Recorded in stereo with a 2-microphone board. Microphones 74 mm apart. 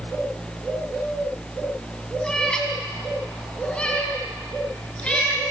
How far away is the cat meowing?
About 3 m.